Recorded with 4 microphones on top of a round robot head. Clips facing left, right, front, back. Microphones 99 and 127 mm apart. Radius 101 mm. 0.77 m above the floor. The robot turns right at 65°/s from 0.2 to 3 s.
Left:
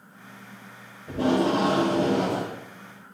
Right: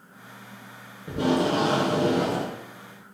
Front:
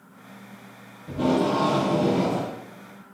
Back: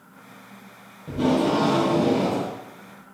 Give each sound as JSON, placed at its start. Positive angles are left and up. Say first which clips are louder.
{"t": 1.1, "sound": "tape being pulled", "louder": "left 1 dB, back 1 dB", "azimuth_deg": -125, "distance_m": 1.7}